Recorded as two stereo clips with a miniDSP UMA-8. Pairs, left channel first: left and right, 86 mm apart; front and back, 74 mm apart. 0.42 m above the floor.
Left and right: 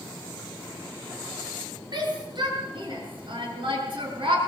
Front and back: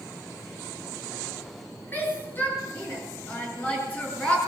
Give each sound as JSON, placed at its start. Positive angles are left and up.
{"t": 1.9, "sound": "a shout", "azimuth_deg": -60, "distance_m": 8.5}